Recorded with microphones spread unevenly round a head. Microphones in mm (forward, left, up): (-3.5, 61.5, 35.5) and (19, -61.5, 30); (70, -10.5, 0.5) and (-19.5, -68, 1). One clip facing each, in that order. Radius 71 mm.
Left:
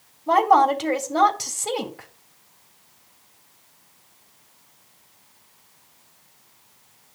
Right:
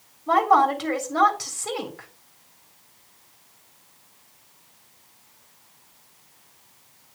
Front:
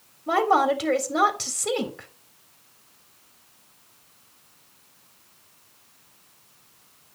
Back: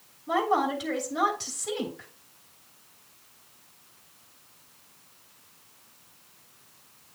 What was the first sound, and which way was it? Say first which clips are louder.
A woman speaking: left 2 dB, front 5 dB; 35° left.